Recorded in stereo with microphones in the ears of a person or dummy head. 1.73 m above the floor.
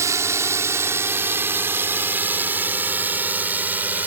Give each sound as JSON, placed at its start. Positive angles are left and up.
{"t": 0.0, "sound": "a drone", "side_deg": -20}